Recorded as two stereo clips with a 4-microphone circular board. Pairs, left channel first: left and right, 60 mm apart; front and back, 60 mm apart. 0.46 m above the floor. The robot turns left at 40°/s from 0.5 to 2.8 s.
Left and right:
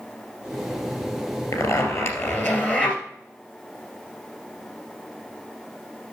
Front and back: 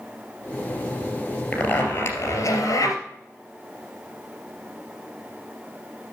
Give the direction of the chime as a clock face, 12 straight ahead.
I don't hear a chime.